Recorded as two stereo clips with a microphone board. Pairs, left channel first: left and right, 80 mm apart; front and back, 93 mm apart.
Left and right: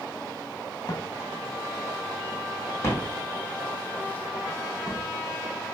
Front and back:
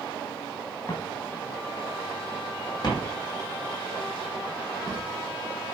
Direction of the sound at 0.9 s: 55° left.